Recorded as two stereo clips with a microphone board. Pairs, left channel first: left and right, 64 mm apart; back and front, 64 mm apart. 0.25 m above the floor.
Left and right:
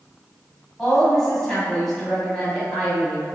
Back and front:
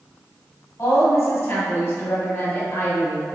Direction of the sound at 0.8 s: 170° left.